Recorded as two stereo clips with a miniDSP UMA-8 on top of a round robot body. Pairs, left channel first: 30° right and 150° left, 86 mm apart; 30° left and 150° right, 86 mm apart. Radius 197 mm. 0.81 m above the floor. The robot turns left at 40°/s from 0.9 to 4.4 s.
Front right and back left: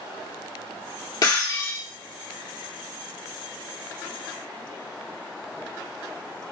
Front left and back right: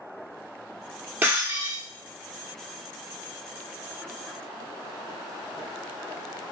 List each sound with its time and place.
1.2 s breaking glass: 80° right, 1.0 m; by 1.8 s 105° right, 1.0 m